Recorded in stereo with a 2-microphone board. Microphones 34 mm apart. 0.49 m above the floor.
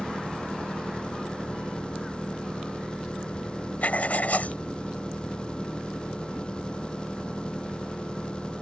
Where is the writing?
55° left (ahead or behind).